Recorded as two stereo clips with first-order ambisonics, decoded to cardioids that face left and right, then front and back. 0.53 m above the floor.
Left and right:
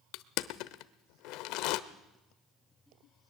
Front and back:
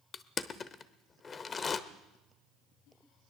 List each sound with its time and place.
0.1 s crushing: 70° left, 0.9 m